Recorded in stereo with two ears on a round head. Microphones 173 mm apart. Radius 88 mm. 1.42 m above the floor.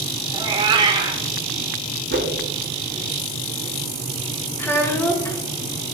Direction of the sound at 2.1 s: 60° right (ahead or behind).